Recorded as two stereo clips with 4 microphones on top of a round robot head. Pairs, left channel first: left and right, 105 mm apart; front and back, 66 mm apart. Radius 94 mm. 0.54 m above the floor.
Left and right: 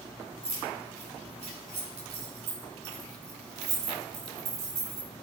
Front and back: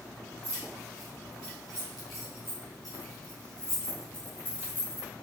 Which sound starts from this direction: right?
Keys jangling, at 0.4 s.